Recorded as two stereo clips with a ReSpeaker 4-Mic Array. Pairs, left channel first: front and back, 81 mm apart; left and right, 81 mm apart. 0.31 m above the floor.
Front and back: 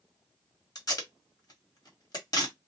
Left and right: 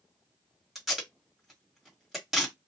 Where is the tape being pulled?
5° right, 1.6 m.